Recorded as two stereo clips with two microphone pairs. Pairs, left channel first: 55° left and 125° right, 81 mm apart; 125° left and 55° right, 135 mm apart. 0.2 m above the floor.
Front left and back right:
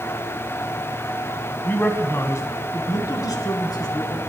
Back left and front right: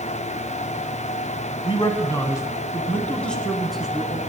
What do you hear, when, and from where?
1.6 s a man speaking: 110° left, 1.2 m; by 4.2 s 30° left, 2 m